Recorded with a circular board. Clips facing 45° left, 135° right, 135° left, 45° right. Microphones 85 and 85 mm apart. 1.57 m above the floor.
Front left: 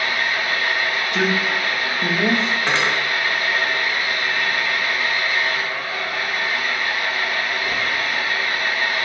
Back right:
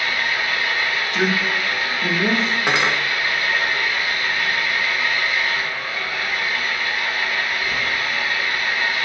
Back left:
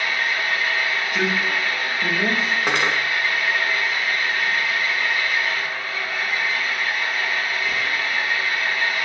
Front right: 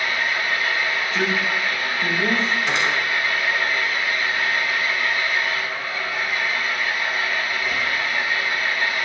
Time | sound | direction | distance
0.0 | an engine running | 40° left | 1.6 m
1.1 | a man speaking | 60° left | 2.5 m
2.7 | cutlery clinking | 150° left | 1.1 m